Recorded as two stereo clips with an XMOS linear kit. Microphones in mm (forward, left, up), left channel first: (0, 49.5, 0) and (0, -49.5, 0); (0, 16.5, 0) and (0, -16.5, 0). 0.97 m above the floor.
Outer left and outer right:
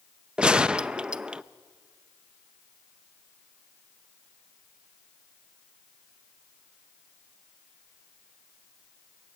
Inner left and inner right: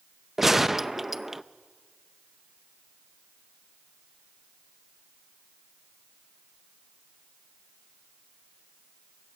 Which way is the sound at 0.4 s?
10° right (ahead or behind).